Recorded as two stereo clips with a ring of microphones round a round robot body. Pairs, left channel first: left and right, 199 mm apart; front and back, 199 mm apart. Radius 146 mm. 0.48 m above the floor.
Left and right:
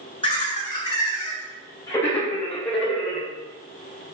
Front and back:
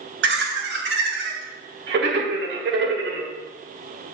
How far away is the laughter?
About 3.5 m.